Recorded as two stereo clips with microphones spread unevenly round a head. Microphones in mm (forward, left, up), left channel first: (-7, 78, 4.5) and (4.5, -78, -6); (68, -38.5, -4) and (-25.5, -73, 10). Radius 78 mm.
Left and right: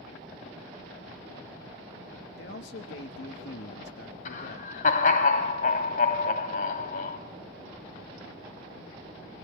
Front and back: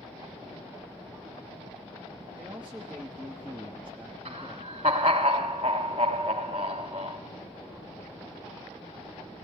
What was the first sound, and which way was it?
A man speaking, 115° left.